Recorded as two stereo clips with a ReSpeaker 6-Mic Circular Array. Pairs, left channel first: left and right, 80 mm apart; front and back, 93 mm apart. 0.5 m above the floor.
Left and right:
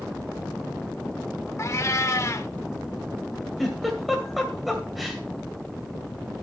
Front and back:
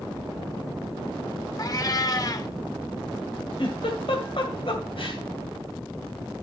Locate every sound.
1.6 s a cat meowing: 40° left, 0.6 m
3.6 s a giggle: straight ahead, 2.0 m